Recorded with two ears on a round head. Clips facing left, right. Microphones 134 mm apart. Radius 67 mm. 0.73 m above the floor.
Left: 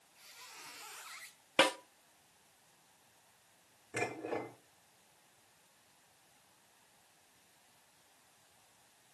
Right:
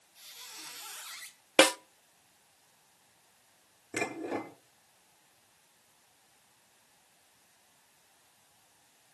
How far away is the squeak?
About 4 m.